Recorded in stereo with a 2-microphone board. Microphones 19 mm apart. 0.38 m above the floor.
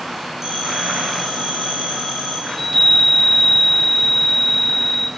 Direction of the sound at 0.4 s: 20° right (ahead or behind).